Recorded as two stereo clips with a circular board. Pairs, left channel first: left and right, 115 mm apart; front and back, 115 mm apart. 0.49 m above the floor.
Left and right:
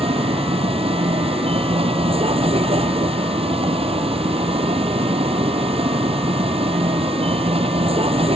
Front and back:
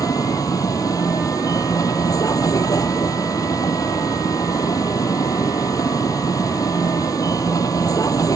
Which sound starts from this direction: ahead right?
A vehicle, at 0.0 s.